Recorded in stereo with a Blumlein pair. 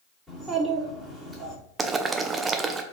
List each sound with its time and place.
0.3 s a child speaking: 10° right, 2.5 m
1.8 s boiling: 20° right, 0.5 m